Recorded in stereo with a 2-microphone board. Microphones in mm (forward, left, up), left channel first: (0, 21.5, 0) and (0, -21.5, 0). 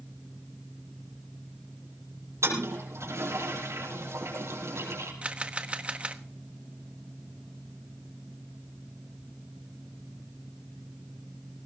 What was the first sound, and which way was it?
A toilet flushing, 85° right.